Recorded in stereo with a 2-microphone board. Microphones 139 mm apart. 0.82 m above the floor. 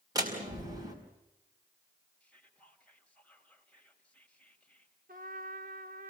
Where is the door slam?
25° right (ahead or behind), 4.5 m.